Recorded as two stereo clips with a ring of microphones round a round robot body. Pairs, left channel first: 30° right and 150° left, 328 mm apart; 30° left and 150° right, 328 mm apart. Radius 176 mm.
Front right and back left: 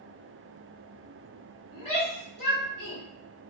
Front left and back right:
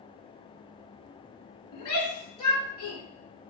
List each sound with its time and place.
1.7 s a shout: 30° left, 1.2 m